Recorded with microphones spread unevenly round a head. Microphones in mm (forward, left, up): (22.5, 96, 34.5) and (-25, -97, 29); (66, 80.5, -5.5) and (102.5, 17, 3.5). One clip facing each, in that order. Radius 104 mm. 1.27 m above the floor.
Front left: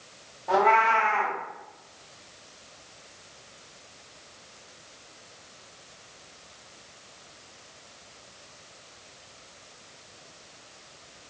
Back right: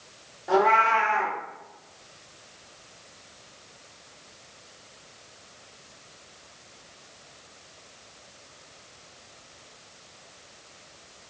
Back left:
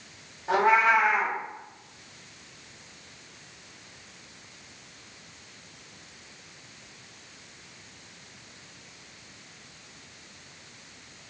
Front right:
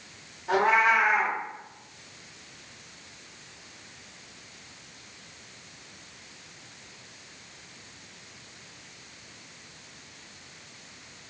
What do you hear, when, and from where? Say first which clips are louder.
0.5 s a cat meowing: back right 1 dB, back left 1 dB; 175° right, 0.8 m